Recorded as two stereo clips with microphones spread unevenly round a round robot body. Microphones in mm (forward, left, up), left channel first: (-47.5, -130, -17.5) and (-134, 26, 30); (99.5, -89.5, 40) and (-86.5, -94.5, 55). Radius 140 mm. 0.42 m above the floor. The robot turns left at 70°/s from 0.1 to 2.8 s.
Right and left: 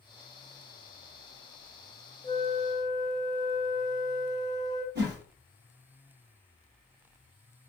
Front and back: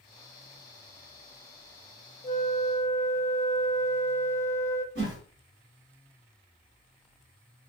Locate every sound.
2.2 s a flute: 20° right, 0.6 m; by 4.8 s 60° right, 0.6 m
5.0 s a whoosh: 155° left, 1.1 m